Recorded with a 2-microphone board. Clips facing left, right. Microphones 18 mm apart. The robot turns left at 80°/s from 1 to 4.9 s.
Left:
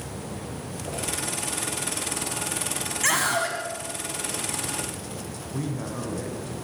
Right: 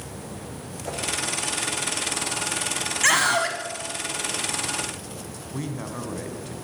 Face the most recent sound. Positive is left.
turn(degrees=-20)  # may be behind; listen again after turning